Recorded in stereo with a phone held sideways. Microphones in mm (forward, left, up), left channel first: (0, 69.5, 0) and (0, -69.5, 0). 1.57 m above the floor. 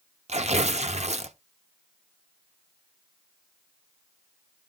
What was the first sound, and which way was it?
Tearing paper, 50° right (ahead or behind).